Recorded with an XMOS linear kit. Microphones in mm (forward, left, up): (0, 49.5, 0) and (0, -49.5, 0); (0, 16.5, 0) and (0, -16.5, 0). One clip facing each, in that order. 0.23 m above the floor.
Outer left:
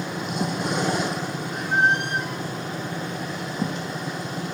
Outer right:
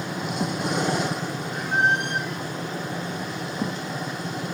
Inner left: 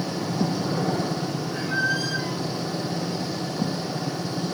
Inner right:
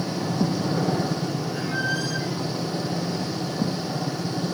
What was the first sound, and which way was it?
A squeak, 55° left (ahead or behind).